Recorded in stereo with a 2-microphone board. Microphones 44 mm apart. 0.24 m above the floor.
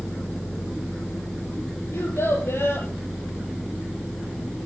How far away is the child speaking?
About 5 m.